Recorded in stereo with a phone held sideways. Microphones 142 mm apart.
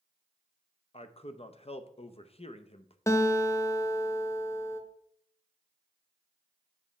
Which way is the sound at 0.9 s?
45° left (ahead or behind).